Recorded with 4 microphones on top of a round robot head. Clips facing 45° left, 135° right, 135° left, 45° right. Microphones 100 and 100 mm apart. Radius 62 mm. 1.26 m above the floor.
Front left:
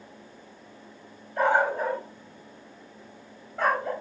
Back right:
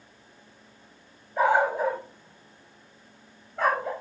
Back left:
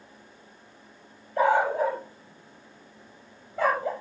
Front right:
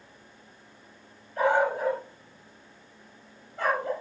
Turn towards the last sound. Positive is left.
turn(degrees=135)